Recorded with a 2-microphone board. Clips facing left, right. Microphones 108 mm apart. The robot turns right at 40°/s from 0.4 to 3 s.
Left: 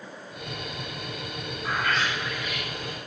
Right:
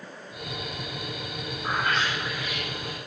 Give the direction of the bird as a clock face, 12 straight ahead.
2 o'clock.